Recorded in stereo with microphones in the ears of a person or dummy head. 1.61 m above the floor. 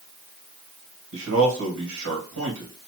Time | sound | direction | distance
1.1 | a man speaking | 80° right | 1.8 m